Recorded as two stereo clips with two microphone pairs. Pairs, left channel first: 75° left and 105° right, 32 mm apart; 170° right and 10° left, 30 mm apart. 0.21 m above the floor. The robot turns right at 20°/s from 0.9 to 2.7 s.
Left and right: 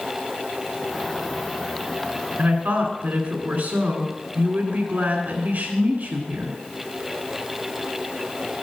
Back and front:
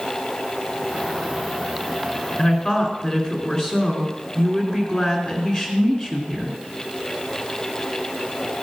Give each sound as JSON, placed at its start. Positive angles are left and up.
{"t": 2.4, "sound": "a woman speaking", "azimuth_deg": -120, "distance_m": 2.0}